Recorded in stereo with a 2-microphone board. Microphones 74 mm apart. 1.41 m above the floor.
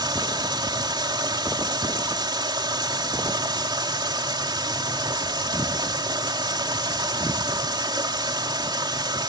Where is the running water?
80° right.